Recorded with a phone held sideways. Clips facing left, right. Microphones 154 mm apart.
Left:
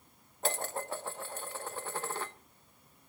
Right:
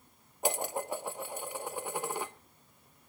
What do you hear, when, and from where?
0.4 s dishes clattering: 15° right (ahead or behind), 0.7 m